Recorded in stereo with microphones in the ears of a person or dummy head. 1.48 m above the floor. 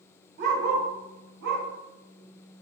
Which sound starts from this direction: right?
A dog barking, at 0.4 s.